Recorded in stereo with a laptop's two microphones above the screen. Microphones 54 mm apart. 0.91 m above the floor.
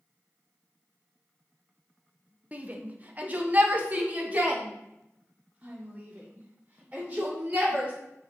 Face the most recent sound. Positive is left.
turn(degrees=-25)  # may be behind; listen again after turning